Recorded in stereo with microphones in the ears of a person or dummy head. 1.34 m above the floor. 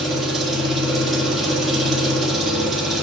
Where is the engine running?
5° right (ahead or behind), 2 m.